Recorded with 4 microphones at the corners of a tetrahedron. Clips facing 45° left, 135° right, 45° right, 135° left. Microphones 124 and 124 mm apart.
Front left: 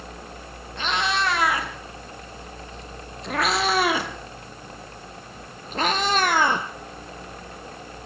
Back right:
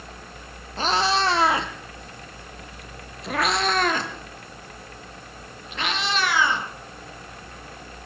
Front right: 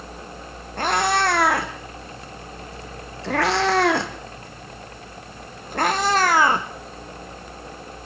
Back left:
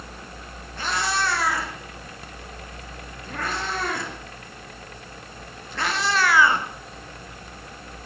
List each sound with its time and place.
0.8 s a cat meowing: 80° right, 4.5 m; by 6.7 s 5° left, 4 m